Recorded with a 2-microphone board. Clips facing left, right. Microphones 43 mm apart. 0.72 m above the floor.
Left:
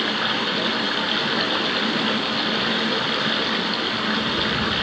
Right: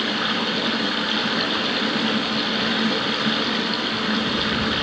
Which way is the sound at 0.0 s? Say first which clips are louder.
Even; 5° left (ahead or behind).